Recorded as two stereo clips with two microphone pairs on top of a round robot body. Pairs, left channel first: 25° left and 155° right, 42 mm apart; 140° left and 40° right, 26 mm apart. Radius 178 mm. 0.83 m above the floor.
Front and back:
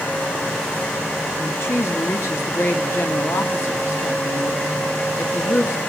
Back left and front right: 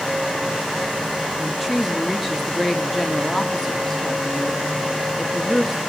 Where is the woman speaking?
50° left, 2.5 m.